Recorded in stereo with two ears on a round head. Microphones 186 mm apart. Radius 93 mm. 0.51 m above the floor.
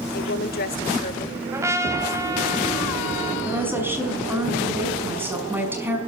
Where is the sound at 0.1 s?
50° left (ahead or behind), 1.4 m; by 1.4 s 40° left (ahead or behind), 2.5 m.